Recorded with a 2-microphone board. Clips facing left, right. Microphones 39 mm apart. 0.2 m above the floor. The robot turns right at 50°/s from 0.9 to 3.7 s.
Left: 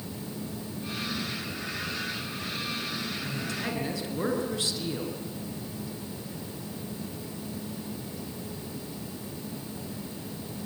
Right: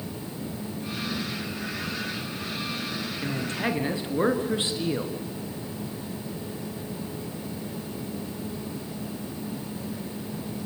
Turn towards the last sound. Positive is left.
turn(degrees=-30)  # may be behind; listen again after turning